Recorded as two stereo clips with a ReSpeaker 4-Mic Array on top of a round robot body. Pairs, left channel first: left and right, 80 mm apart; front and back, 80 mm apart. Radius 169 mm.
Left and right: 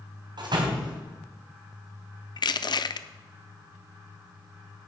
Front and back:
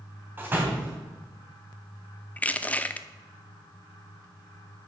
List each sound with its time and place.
0.4 s a door slam: 115° right, 3 m
2.4 s crushing: 70° left, 0.7 m